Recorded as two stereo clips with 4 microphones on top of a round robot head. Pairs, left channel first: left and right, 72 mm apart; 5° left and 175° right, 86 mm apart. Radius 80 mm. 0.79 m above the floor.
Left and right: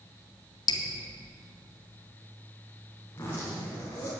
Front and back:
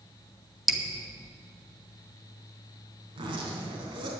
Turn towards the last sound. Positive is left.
turn(degrees=160)